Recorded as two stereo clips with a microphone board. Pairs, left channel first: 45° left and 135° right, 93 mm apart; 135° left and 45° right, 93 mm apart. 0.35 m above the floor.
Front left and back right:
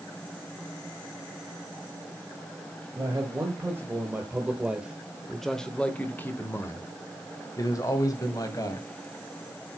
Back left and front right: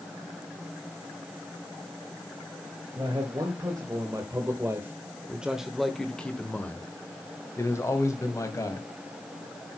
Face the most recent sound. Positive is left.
turn(degrees=85)